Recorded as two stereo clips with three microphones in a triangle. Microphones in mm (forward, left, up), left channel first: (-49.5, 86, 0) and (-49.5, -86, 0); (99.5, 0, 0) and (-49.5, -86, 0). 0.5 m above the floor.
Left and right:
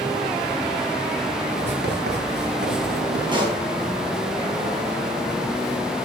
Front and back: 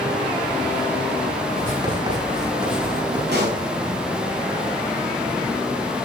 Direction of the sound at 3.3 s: 155° right.